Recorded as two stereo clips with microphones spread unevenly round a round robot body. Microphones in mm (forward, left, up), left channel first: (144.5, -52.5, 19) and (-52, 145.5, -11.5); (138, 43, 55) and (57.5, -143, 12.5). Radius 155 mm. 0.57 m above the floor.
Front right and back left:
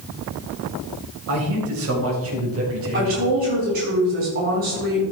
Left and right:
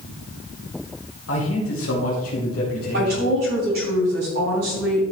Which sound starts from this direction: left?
A man speaking, at 1.3 s.